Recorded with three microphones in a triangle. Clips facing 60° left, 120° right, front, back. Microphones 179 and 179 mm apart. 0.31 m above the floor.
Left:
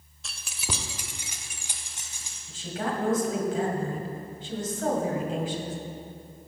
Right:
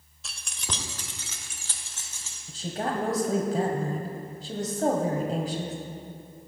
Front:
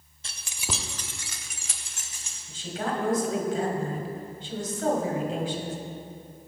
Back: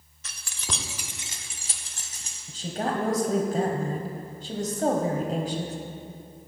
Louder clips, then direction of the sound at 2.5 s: Right 1 dB, back 2 dB; 150° right.